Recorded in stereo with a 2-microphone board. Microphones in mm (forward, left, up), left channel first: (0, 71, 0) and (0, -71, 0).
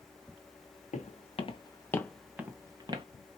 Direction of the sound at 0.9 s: 60° left (ahead or behind).